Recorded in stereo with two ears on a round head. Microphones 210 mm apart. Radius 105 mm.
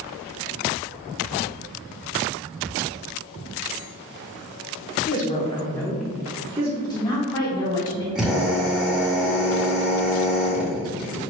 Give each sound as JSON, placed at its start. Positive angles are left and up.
{"t": 5.1, "sound": "a woman speaking", "side_deg": 40, "distance_m": 0.9}
{"t": 6.8, "sound": "a woman speaking", "side_deg": 15, "distance_m": 1.1}
{"t": 8.2, "sound": "a drill", "side_deg": -5, "distance_m": 1.3}